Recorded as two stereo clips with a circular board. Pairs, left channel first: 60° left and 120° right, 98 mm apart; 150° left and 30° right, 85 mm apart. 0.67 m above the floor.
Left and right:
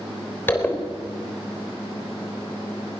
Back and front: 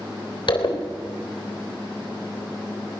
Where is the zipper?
130° left, 3.5 m.